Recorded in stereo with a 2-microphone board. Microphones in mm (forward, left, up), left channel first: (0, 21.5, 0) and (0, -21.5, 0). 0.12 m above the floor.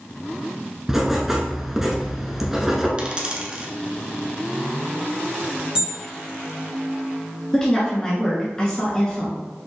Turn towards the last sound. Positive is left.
turn(degrees=15)  # may be behind; listen again after turning